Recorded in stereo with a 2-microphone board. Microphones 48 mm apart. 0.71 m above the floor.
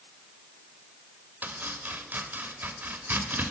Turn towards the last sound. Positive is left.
turn(degrees=-40)  # may be behind; listen again after turning